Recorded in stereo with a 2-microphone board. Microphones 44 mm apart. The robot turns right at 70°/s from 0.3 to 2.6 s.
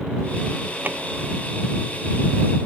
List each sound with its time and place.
0.8 s a drawer: 45° right (ahead or behind); by 1.0 s 55° right (ahead or behind)